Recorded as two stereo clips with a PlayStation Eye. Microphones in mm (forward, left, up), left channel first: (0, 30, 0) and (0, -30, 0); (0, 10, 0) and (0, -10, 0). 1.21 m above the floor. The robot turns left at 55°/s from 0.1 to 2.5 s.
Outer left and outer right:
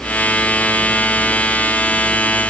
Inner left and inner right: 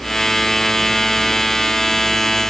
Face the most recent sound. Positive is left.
No sound to turn to.